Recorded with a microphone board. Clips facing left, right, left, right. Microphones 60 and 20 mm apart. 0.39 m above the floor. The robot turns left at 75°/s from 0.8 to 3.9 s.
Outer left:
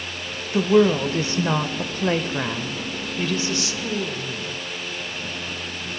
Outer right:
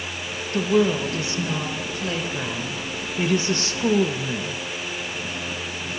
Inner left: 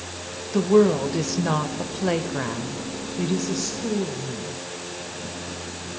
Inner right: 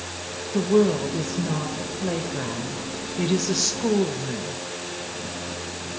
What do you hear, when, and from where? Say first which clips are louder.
0.5 s a woman speaking: outer left 3 dB, inner left 2 dB; 160° left, 1.2 m; by 4.6 s 75° right, 1.2 m